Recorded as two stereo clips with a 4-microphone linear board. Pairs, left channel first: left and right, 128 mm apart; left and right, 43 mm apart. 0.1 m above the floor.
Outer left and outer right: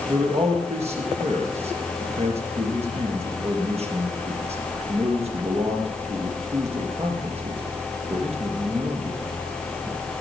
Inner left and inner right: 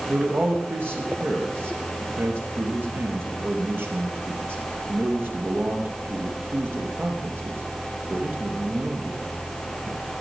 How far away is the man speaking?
About 3 m.